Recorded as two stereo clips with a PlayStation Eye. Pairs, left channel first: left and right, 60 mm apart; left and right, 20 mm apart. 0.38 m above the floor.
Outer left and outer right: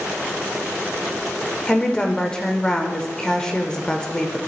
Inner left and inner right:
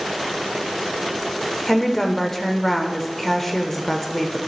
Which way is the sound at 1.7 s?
15° left (ahead or behind).